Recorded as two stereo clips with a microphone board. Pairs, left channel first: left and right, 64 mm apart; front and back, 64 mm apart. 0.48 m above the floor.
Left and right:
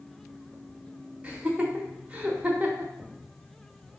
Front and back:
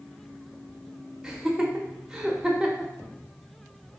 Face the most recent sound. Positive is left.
turn(degrees=-115)